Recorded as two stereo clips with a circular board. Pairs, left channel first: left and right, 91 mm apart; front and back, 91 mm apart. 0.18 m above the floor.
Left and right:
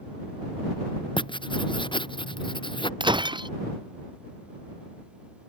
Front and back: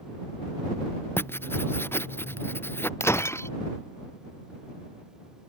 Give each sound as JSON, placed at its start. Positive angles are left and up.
{"t": 1.2, "sound": "writing", "azimuth_deg": 65}
{"t": 3.0, "sound": "breaking glass", "azimuth_deg": -60}